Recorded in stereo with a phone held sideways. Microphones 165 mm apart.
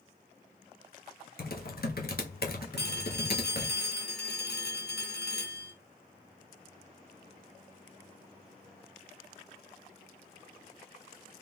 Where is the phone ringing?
85° left, 1.2 m.